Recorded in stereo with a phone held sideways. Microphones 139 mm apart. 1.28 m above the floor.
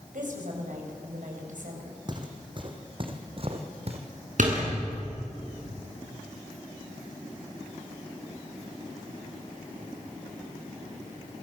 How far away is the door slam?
About 9.5 m.